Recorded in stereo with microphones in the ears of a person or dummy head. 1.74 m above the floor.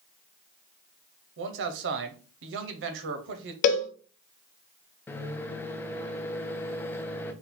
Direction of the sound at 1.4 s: 70° right (ahead or behind).